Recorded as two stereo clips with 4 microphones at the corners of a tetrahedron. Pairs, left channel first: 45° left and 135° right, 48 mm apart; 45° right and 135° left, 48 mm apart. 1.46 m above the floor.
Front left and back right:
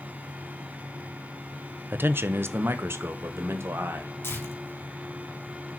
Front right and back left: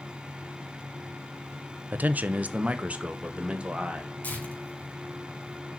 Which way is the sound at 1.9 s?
175° right.